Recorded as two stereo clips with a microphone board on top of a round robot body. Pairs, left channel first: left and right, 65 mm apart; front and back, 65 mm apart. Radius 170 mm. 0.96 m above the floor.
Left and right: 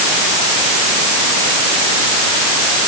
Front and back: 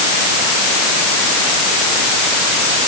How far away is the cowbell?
I don't hear a cowbell.